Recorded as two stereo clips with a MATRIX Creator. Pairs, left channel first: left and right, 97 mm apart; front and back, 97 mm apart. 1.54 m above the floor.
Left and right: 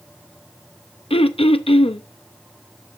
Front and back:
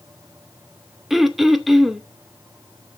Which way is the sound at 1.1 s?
90° left.